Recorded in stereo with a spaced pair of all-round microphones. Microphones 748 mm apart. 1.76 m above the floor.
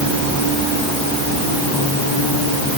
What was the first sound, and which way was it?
Only background noise.